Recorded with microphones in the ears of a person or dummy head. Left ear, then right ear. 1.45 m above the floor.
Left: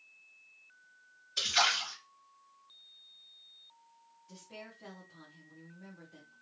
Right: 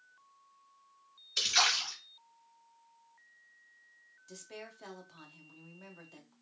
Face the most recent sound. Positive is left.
turn(degrees=-40)  # may be behind; listen again after turning